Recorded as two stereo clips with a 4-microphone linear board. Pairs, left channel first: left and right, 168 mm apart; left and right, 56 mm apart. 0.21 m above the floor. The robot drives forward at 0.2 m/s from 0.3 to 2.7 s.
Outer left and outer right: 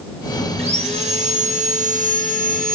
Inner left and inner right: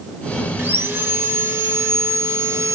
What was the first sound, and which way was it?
Sawing, 35° right (ahead or behind).